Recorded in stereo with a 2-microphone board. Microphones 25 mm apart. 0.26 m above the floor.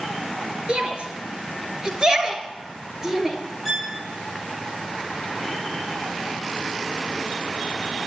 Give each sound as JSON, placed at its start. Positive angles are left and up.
{"t": 0.7, "sound": "a shout", "side_deg": -45, "distance_m": 4.5}
{"t": 3.6, "sound": "a violin", "side_deg": -5, "distance_m": 3.0}